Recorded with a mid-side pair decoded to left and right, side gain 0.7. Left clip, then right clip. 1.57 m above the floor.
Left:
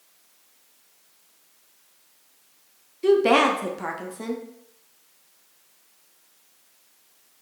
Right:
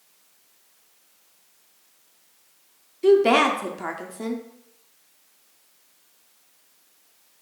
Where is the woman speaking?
Straight ahead, 0.6 m.